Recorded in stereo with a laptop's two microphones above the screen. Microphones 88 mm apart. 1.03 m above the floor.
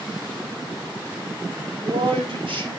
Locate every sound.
1.6 s a man speaking: 70° right (ahead or behind), 3 m; by 2.7 s 75° right (ahead or behind), 3.5 m